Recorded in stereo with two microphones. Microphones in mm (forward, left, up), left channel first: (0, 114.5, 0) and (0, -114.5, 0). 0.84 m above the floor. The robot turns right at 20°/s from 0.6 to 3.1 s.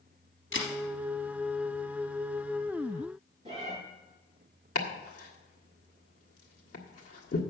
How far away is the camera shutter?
About 3 m.